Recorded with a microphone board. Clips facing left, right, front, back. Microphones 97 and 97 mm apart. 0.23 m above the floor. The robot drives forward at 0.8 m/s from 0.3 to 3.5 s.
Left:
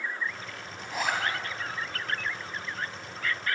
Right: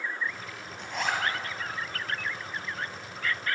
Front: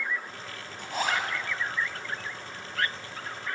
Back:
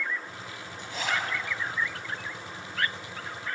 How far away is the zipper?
About 1.2 m.